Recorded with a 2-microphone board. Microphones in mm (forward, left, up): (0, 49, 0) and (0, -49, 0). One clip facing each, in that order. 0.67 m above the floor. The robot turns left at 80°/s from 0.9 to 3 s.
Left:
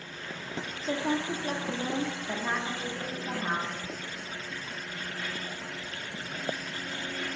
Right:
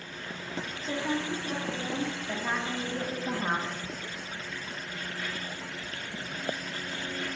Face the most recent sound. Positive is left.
turn(degrees=-35)